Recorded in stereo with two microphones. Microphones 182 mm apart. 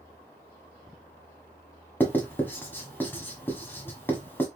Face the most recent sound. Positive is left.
turn(degrees=10)  # may be behind; listen again after turning